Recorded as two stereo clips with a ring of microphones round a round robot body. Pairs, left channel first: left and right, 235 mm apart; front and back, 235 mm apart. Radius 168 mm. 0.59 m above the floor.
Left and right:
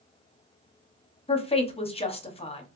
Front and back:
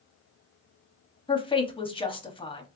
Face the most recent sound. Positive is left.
turn(degrees=50)